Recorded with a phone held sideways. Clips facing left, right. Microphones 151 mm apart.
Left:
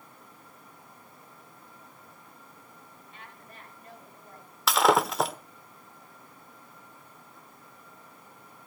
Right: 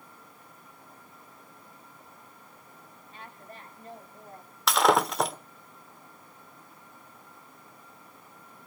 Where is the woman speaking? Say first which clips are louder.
Right 5 dB; 35° right (ahead or behind), 5.5 m; by 4.6 s 30° right (ahead or behind), 7.5 m.